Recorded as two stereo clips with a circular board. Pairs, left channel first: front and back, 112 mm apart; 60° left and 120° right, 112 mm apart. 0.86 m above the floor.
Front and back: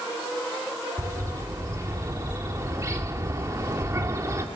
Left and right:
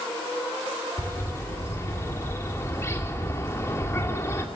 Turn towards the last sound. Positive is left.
turn(degrees=120)